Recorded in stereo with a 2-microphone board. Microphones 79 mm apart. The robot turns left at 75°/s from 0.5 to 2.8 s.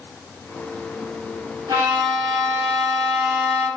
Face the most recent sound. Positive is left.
turn(degrees=-160)